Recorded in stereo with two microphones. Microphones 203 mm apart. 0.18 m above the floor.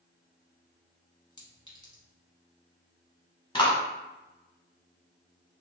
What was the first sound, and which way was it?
A clink, 20° left (ahead or behind).